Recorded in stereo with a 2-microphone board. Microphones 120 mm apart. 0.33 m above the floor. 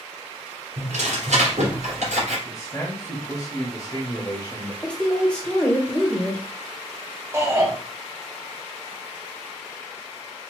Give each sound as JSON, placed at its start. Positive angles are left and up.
{"t": 0.8, "sound": "tearing paper", "side_deg": -70, "distance_m": 2.5}
{"t": 2.5, "sound": "a man speaking", "side_deg": 25, "distance_m": 1.1}
{"t": 4.8, "sound": "a woman speaking", "side_deg": 10, "distance_m": 1.0}
{"t": 7.3, "sound": "a shout", "side_deg": -20, "distance_m": 1.5}